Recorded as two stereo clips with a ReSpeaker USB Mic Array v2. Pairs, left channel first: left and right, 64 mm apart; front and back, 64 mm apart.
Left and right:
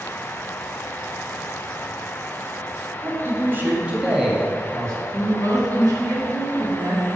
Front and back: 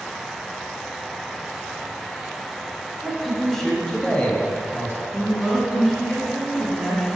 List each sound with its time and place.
3.0 s a man speaking: 95° right, 1.8 m; by 5.0 s 25° left, 1.6 m
5.1 s a woman speaking: 95° right, 2.5 m